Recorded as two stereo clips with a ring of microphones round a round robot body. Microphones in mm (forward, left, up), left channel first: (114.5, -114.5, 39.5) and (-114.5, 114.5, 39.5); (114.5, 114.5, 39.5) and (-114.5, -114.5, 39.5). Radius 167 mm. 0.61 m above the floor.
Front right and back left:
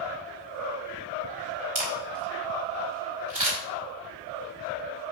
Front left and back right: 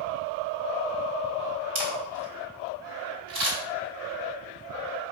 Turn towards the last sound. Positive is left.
turn(degrees=-160)